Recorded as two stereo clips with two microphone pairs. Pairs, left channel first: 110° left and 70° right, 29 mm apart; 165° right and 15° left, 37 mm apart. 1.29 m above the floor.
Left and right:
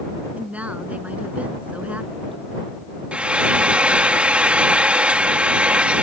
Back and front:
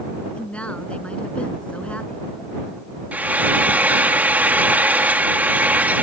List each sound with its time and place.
0.3 s a woman speaking: 105° right
3.1 s frying: 25° right